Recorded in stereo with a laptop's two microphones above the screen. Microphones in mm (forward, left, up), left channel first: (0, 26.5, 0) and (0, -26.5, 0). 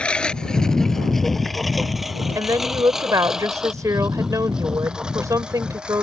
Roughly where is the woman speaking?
Right.